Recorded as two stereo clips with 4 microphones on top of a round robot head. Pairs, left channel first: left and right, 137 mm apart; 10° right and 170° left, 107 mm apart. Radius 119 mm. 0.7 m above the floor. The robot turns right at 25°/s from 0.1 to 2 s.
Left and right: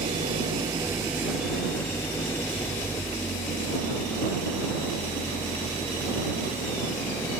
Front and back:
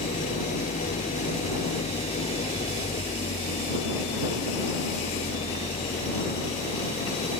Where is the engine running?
35° right; by 7.4 s 15° left.